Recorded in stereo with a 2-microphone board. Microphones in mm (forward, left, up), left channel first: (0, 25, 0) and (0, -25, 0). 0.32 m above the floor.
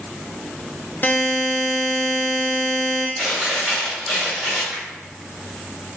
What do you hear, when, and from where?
1.0 s a buzzer: 40° left (ahead or behind), 0.5 m
3.2 s chewing: 10° left (ahead or behind), 1.6 m
4.7 s a finger snap: 10° left (ahead or behind), 1.2 m